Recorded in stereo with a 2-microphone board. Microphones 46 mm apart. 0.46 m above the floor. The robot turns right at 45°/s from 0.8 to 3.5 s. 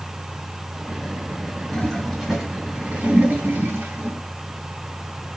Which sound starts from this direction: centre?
A toilet flushing, at 1.7 s.